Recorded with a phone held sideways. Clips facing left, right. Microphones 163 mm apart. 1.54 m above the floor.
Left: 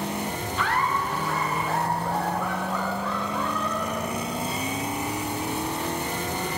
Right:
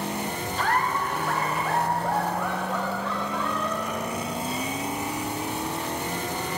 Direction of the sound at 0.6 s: 40° right (ahead or behind).